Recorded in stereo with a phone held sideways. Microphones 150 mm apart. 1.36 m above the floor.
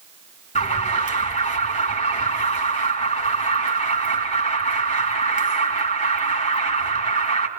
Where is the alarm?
60° left (ahead or behind), 3 m.